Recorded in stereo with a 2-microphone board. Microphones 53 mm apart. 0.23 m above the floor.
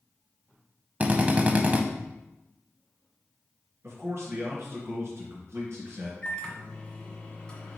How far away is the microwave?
About 1.4 m.